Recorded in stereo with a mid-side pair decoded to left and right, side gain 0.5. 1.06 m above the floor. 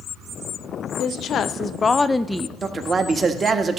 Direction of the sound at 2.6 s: 35° right.